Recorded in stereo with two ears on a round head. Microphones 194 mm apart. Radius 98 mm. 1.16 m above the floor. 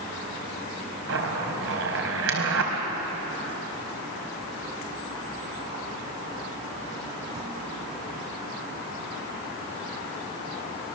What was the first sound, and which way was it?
A zipper, 65° right (ahead or behind).